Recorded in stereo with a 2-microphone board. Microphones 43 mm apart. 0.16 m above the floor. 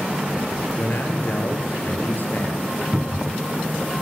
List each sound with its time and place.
0.8 s a man speaking: 45° left (ahead or behind), 4 m
2.9 s a cupboard door: 15° right (ahead or behind), 1.1 m